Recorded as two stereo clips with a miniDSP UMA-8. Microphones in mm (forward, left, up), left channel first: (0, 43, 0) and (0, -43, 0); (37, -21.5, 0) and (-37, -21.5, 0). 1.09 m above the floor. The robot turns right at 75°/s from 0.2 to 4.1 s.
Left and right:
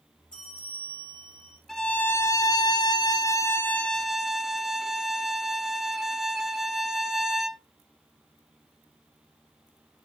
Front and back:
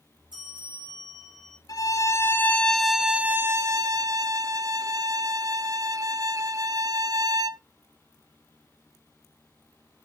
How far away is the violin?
About 0.6 m.